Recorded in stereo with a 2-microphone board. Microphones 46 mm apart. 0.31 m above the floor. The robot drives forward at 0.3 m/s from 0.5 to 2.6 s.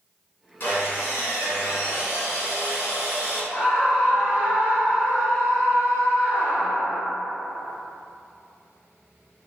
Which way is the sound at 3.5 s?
25° left (ahead or behind).